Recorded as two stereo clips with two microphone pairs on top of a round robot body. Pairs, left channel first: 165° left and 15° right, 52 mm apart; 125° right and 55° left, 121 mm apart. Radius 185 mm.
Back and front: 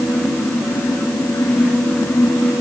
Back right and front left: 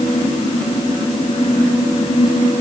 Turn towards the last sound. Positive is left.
No sound to turn to.